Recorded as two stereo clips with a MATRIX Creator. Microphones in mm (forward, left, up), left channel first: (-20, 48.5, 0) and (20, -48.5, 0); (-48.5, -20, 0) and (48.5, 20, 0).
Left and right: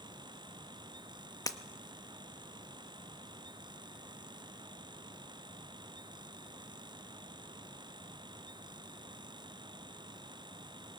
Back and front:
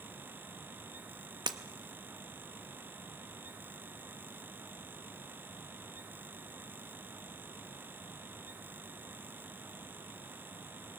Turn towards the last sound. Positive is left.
turn(degrees=60)